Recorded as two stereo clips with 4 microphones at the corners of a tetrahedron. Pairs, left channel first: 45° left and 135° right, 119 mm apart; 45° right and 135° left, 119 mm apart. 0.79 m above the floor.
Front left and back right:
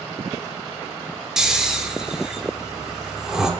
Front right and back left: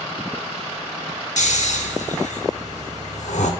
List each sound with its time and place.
1.4 s snoring: 50° right, 0.8 m